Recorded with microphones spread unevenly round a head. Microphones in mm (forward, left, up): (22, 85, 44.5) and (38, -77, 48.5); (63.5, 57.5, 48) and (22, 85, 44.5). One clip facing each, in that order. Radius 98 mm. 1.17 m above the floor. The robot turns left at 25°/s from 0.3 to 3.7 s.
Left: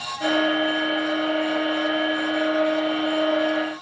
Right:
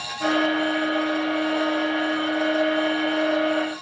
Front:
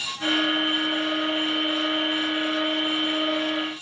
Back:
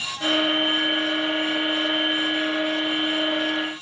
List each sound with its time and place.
Only background noise.